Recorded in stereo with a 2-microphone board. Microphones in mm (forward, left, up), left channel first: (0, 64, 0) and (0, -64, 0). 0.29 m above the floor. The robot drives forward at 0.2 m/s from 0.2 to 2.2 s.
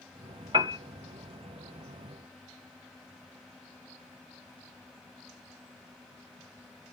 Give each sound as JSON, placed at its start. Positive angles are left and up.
{"t": 0.5, "sound": "a piano", "side_deg": -40, "distance_m": 0.7}